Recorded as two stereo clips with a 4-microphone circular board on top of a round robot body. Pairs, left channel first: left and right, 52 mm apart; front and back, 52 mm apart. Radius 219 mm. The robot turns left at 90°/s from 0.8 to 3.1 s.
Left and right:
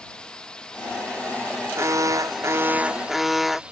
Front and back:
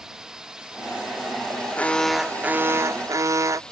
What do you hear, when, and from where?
0.0 s a drone: 120° left; by 3.7 s 50° right
1.8 s an alarm: 55° right; by 3.6 s straight behind